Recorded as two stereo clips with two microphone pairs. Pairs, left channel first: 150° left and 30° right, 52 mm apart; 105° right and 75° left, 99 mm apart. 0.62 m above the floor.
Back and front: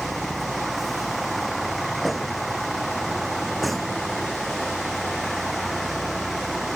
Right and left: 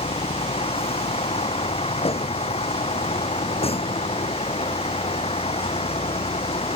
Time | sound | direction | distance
0.0 | a vehicle | 120° right | ?